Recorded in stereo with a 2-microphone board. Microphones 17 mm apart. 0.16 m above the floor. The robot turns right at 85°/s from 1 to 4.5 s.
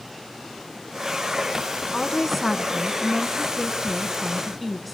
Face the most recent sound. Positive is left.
turn(degrees=-5)